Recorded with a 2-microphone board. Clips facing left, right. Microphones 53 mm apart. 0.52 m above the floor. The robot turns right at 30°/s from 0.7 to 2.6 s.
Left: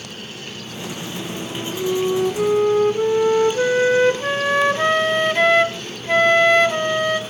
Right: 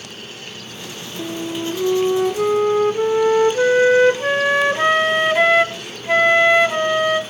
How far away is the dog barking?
No dog barking in this recording.